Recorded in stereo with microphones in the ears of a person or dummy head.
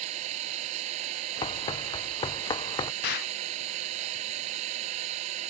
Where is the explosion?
55° left (ahead or behind).